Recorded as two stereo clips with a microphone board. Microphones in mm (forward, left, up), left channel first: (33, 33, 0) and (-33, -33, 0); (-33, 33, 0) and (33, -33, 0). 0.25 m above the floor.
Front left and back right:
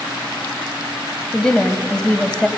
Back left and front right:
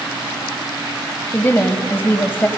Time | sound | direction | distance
1.3 | a woman speaking | 115° left | 1.2 m